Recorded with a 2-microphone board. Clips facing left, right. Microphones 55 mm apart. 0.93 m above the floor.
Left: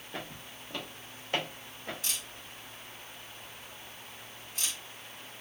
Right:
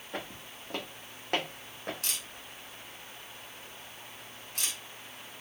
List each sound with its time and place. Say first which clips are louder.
0.1 s footsteps: right 2 dB; 50° right (ahead or behind), 2 m; by 1.9 s 60° right (ahead or behind), 1.7 m
2.0 s a camera shutter: even; 80° right, 1.8 m